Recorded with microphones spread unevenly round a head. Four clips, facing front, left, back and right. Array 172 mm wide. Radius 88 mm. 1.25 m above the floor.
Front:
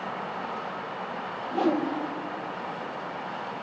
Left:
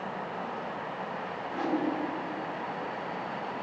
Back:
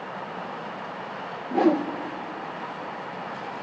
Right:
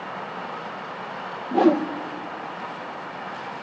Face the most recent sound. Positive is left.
turn(degrees=-110)